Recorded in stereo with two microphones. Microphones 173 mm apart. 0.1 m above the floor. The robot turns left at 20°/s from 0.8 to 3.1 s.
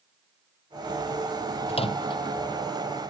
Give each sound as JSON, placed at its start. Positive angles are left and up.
{"t": 1.7, "sound": "a microwave", "side_deg": 35}